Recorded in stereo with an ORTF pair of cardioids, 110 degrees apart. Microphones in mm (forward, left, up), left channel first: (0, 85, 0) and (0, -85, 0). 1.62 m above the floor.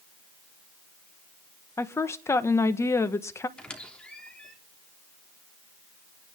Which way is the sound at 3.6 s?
5° left.